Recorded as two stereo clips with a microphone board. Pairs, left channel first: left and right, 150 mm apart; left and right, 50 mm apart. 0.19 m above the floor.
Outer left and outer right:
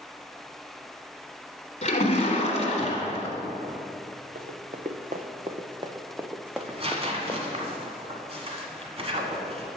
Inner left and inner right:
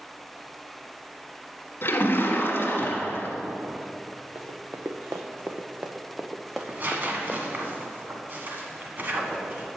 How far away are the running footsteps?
About 1.2 m.